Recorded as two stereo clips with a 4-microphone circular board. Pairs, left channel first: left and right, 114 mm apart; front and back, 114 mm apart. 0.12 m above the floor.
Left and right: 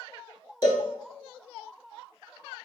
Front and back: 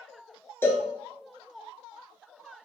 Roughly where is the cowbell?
Ahead left.